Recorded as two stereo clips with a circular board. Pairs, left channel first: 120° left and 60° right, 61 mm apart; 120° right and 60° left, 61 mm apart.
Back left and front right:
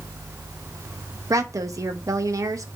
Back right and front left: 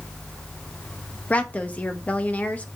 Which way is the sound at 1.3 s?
60° right.